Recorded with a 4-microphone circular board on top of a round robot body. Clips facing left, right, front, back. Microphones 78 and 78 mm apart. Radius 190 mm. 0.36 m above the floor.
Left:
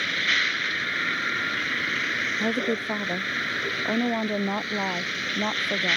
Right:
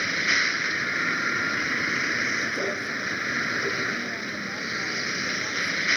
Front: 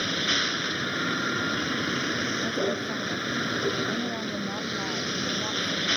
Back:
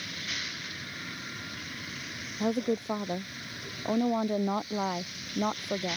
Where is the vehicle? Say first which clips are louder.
Right 1 dB, front 11 dB; 10° right.